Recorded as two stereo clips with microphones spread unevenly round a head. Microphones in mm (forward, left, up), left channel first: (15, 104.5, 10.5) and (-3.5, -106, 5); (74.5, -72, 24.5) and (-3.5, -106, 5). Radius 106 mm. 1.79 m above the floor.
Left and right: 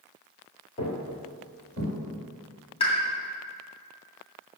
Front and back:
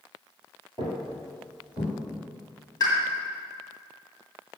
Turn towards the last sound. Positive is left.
turn(degrees=30)